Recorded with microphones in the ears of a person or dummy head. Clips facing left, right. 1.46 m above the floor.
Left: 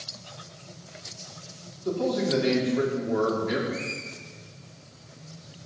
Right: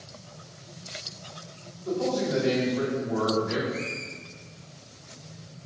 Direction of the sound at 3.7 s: 20° left (ahead or behind).